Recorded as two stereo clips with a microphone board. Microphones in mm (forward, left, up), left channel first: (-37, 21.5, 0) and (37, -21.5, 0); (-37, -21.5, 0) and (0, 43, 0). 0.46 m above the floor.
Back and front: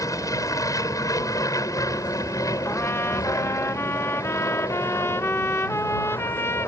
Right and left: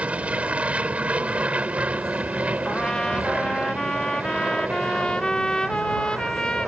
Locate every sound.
0.0 s an aircraft: 125° left
2.6 s a trumpet: 170° left